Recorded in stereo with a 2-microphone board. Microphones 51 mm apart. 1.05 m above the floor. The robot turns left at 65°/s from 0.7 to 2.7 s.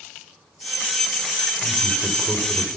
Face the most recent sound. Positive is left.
turn(degrees=-10)